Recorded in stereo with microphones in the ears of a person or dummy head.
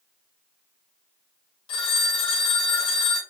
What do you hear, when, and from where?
1.7 s a phone ringing: 30° left (ahead or behind), 1.1 m